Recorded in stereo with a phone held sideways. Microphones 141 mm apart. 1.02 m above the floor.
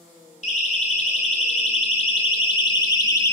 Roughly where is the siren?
Left.